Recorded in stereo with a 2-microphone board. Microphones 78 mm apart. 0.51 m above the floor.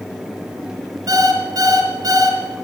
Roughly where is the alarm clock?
Right.